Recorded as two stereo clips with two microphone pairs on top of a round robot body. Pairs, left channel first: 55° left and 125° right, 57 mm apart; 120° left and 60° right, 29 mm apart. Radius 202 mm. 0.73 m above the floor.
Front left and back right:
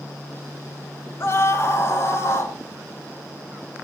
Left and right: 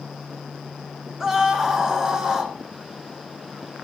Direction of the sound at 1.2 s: 15° left.